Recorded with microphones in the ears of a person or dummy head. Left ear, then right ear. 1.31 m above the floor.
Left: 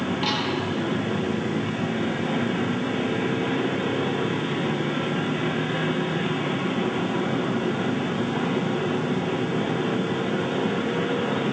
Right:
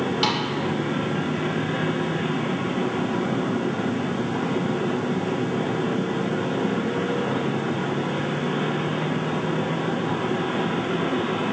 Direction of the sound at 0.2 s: 80° right.